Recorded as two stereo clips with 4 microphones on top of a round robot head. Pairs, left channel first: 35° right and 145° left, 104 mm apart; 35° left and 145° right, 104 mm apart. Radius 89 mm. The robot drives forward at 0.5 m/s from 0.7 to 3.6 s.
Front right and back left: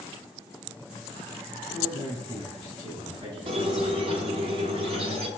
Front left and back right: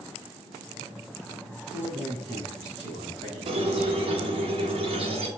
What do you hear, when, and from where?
1.7 s a man speaking: 175° left, 3 m; by 4.5 s straight behind, 4 m
3.5 s a squeak: straight behind, 1.0 m